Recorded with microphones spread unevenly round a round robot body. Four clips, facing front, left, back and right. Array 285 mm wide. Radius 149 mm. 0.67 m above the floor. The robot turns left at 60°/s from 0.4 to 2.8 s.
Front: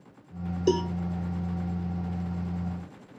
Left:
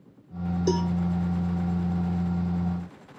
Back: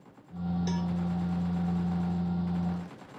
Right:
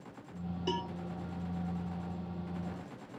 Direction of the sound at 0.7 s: 25° left.